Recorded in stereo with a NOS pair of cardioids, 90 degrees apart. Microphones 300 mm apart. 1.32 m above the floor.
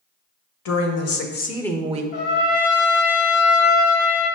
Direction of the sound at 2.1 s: 50° left.